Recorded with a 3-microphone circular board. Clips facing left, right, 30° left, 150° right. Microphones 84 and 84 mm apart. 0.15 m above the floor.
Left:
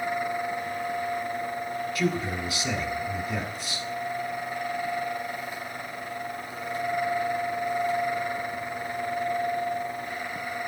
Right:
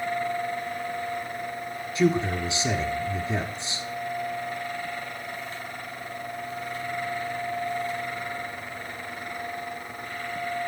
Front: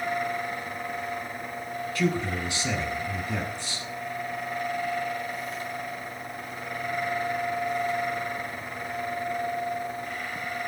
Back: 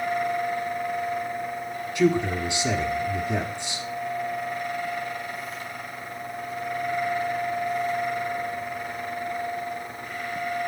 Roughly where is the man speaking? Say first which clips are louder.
Right 7 dB, back 6 dB; right.